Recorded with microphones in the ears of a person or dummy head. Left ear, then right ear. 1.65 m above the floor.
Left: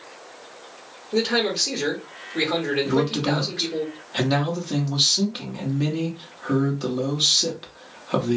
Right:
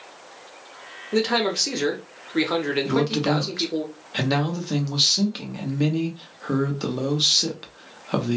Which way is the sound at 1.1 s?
60° right (ahead or behind).